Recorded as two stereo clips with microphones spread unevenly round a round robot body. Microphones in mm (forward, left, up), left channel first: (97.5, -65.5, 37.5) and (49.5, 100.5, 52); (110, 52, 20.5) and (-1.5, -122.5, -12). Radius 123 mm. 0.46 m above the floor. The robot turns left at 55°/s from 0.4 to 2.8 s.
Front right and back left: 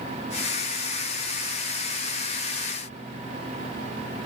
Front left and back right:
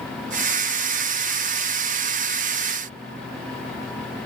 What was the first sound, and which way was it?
Only background noise.